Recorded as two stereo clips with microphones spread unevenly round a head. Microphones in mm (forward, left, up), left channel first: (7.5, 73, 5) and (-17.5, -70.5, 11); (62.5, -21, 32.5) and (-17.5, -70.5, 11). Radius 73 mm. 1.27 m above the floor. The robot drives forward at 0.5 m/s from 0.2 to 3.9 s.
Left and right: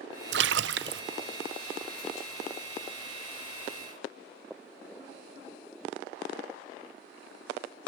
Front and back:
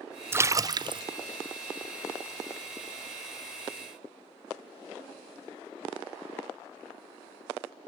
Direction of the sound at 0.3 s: 85° right.